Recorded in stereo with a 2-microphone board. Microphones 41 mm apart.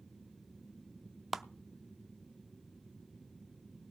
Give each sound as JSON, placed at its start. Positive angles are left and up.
{"t": 1.3, "sound": "a clap", "side_deg": -5, "distance_m": 0.6}